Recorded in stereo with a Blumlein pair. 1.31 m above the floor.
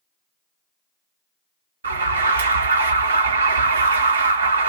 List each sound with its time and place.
1.8 s an alarm: 70° right, 0.6 m